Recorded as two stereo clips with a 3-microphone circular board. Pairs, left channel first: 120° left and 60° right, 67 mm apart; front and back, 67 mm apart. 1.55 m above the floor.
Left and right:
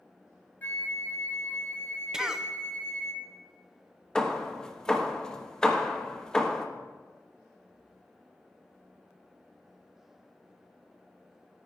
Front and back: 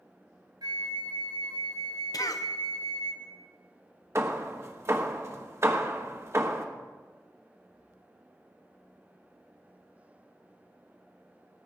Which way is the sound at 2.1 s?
20° left.